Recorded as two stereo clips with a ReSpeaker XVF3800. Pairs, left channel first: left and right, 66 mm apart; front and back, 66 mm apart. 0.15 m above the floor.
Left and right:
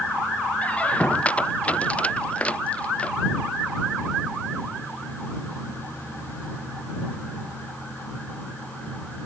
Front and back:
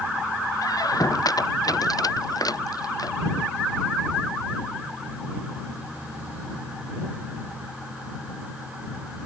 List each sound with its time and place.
0.6 s a squeak: 20° left